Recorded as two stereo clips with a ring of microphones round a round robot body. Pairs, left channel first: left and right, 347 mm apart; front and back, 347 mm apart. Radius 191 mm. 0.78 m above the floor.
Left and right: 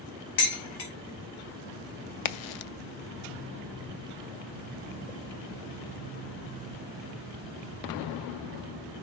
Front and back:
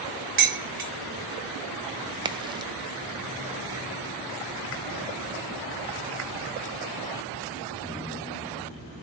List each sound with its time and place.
0.4 s dishes clattering: 120° left, 2.5 m
2.2 s a crack: 100° left, 0.5 m